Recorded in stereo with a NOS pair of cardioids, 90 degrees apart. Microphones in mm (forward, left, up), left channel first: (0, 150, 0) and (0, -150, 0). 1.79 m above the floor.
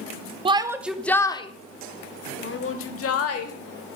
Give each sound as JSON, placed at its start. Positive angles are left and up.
{"t": 0.5, "sound": "a shout", "azimuth_deg": -20, "distance_m": 0.9}